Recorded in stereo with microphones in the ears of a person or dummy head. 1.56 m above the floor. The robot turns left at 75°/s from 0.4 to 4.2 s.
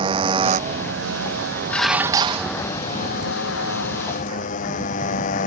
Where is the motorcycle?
25° right; by 5.5 s 50° left.